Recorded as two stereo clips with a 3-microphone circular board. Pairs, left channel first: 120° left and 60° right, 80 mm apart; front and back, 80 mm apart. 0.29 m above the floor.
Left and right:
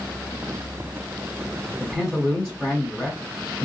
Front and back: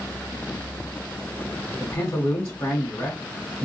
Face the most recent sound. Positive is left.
turn(degrees=25)